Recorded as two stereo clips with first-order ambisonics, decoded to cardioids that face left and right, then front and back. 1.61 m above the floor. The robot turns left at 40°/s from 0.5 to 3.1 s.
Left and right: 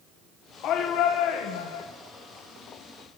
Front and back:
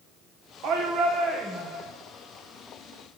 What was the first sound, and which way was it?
A shout, 135° left.